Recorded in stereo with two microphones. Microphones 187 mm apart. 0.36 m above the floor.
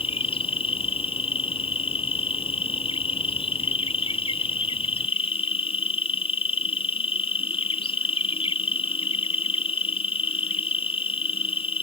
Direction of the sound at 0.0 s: 30° left (ahead or behind).